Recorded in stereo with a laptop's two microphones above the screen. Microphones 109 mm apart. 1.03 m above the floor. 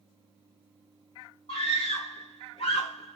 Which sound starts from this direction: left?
A scream, at 1.5 s.